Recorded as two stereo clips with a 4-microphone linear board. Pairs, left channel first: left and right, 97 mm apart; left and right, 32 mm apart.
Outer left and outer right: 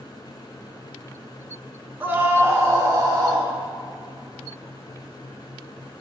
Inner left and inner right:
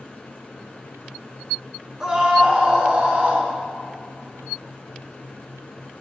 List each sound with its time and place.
2.0 s a scream: 20° right (ahead or behind), 1.3 m; by 3.5 s 40° right (ahead or behind), 1.7 m